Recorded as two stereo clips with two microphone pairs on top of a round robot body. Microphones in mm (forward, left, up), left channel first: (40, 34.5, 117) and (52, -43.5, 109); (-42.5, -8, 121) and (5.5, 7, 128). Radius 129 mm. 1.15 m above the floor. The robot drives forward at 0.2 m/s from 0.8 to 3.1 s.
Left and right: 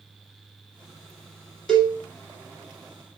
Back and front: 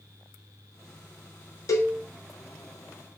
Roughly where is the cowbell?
Behind.